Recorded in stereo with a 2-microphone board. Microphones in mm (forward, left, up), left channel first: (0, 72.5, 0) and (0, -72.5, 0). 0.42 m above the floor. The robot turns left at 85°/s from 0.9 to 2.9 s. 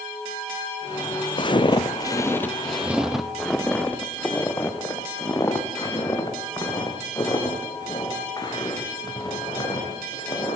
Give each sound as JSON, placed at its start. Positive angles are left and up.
{"t": 1.4, "sound": "footsteps", "side_deg": 40, "distance_m": 0.7}